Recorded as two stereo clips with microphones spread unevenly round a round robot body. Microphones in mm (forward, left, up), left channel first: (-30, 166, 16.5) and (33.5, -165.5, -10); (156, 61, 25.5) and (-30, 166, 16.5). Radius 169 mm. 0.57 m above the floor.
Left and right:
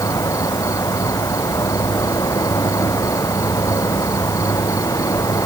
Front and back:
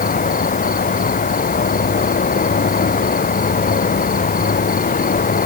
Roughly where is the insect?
Ahead.